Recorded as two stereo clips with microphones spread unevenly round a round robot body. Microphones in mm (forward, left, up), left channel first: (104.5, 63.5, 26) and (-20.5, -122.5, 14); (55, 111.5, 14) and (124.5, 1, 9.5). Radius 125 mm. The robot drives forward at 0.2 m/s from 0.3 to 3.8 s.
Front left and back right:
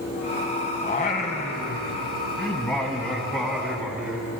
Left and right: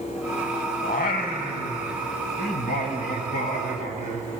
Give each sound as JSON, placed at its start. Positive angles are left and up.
{"t": 0.8, "sound": "singing", "azimuth_deg": 115, "distance_m": 0.7}